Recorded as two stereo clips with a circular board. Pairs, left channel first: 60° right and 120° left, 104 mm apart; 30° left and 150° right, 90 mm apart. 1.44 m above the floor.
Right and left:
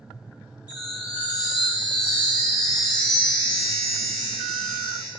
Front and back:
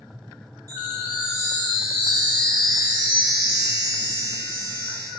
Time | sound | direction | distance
0.7 | a chime | 105° right | 2.5 m